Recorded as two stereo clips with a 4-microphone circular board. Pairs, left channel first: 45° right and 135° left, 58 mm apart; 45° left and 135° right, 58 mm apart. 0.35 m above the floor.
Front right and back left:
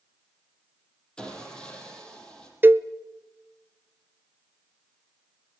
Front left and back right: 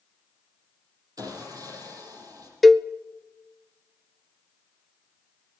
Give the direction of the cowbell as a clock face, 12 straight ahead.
8 o'clock.